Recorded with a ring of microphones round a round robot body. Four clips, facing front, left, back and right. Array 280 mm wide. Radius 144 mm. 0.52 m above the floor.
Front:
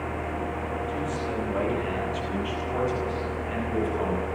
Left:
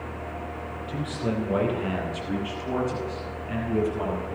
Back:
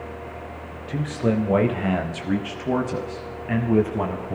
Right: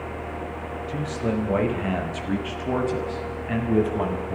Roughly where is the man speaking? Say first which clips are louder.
Right 2 dB, back 5 dB; behind.